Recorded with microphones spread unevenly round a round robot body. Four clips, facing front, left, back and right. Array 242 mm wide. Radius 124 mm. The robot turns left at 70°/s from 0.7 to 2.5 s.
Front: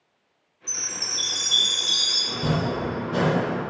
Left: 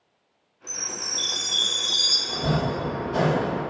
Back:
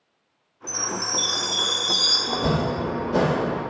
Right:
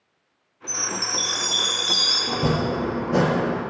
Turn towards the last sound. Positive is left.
turn(degrees=-100)